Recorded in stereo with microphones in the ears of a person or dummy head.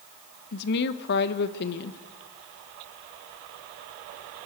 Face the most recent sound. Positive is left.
turn(degrees=60)  # may be behind; listen again after turning